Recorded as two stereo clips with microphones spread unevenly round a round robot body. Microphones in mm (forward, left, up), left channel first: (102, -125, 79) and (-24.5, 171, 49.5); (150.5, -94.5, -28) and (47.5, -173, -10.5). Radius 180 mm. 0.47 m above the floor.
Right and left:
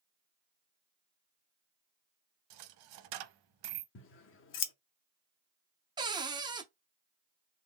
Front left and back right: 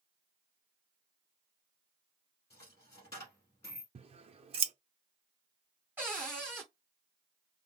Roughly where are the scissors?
Right.